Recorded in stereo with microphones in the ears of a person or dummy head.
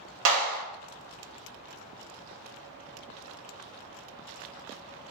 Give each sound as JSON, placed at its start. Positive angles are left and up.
{"t": 0.2, "sound": "a clap", "side_deg": -70, "distance_m": 1.1}